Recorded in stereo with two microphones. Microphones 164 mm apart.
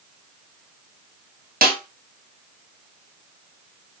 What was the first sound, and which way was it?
A snare drum, 65° right (ahead or behind).